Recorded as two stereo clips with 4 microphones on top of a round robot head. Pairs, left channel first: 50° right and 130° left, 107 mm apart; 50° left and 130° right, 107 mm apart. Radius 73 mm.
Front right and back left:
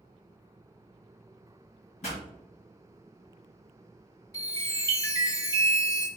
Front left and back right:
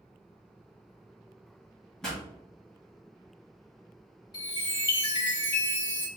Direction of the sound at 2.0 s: 30° right.